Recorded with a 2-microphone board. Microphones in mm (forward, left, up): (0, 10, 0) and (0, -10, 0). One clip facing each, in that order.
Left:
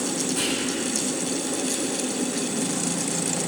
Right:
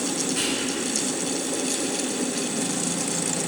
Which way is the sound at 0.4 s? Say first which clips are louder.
Even; 15° right (ahead or behind).